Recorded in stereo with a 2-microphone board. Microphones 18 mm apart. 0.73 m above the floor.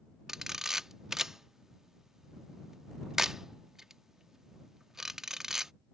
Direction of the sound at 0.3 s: 25° right (ahead or behind).